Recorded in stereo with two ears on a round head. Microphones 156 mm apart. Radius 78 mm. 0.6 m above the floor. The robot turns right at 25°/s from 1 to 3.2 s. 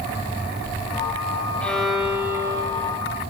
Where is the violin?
175° left, 1.3 m; by 3.0 s 150° right, 1.3 m.